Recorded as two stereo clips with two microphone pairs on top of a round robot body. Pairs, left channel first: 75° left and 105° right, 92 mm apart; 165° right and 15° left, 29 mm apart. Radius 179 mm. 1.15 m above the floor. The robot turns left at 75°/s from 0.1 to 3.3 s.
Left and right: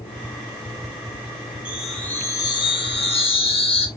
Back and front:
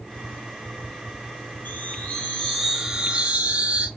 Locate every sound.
1.6 s a chime: straight behind, 1.8 m; by 3.9 s 55° left, 1.8 m